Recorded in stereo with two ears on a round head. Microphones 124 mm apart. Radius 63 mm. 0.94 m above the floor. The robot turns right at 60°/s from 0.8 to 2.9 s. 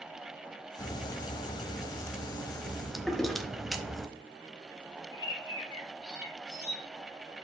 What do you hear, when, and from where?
0.8 s a crack: 20° left (ahead or behind), 0.8 m; by 4.1 s centre (ahead or behind), 0.8 m
3.1 s a toilet flushing: centre (ahead or behind), 1.0 m
5.1 s a bird: 30° left (ahead or behind), 2.0 m